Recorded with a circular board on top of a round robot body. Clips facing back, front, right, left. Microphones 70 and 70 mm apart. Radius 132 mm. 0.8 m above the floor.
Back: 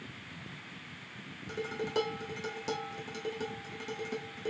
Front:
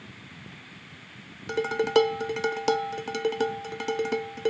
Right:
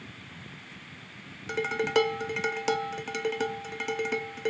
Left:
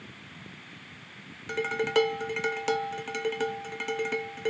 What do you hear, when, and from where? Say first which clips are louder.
1.5 s dishes clattering: front 12 dB, even; straight ahead, 0.7 m